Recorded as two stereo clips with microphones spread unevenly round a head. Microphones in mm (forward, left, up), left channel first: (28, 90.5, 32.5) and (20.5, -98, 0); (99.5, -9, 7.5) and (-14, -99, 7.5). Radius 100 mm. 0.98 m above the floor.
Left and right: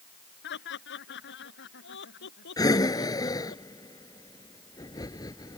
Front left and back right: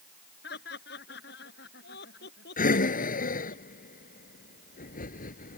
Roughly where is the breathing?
Ahead.